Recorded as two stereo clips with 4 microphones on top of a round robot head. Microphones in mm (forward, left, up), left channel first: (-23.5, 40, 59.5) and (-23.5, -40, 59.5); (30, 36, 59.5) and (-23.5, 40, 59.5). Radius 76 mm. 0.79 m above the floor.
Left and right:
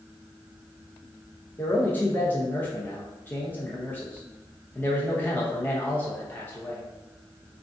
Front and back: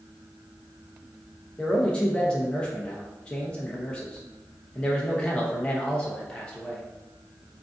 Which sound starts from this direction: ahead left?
A man speaking, at 1.6 s.